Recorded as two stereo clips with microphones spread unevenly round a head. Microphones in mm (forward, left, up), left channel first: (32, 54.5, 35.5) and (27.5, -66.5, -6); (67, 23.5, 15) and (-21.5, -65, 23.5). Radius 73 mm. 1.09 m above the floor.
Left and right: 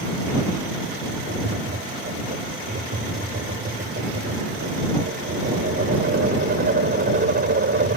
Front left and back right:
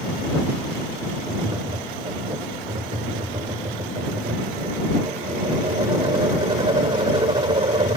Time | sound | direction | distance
1.3 | tapping | 80° right | ?